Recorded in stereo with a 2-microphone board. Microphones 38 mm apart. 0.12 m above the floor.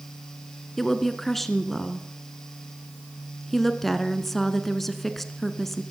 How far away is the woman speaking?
About 1.1 m.